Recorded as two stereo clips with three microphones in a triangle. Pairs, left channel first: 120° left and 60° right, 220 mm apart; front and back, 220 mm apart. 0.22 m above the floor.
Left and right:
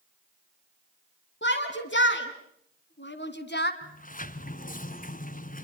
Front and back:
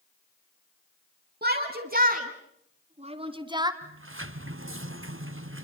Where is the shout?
145° left, 2.5 m; by 3.7 s 110° left, 1.7 m.